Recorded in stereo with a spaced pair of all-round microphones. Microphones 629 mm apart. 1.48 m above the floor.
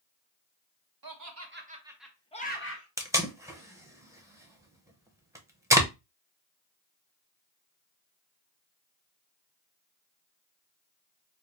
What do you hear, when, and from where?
1.0 s laughter: 35° right (ahead or behind), 0.9 m; by 2.9 s 25° left (ahead or behind), 1.1 m
3.0 s tape being pulled: 5° right (ahead or behind), 0.7 m